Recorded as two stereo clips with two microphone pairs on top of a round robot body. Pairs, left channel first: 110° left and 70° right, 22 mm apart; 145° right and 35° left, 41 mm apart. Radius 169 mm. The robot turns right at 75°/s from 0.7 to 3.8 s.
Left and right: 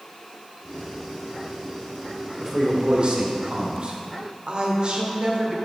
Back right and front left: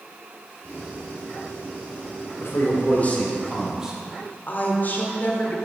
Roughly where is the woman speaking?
Right.